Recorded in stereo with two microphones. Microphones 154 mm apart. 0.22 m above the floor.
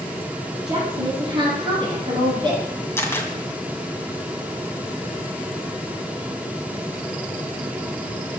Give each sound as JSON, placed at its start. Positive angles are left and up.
{"t": 0.7, "sound": "a woman speaking", "side_deg": -30, "distance_m": 8.0}
{"t": 3.0, "sound": "a camera shutter", "side_deg": 15, "distance_m": 2.0}